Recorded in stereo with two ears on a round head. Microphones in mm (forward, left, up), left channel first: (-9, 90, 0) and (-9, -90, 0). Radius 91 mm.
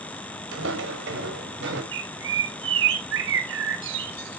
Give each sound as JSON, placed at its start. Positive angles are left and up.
{"t": 0.5, "sound": "footsteps", "side_deg": -60, "distance_m": 3.0}
{"t": 1.9, "sound": "a bird", "side_deg": -65, "distance_m": 2.0}